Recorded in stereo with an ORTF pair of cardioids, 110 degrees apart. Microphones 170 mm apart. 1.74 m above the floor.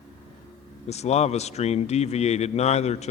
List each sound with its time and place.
0.9 s a man speaking: 40° left, 0.6 m